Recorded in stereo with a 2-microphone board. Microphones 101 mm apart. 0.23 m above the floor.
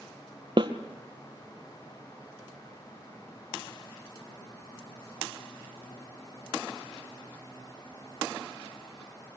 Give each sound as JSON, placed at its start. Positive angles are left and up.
{"t": 0.6, "sound": "a snare drum", "side_deg": -50, "distance_m": 1.8}